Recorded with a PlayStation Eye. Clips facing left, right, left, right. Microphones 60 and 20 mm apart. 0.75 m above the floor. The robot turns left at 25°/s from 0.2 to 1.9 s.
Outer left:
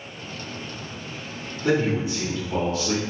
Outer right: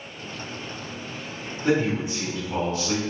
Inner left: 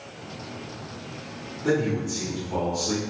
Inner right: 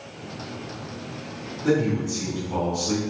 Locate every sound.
1.6 s a man speaking: 10° right (ahead or behind), 1.5 m; by 3.0 s 5° right (ahead or behind), 1.5 m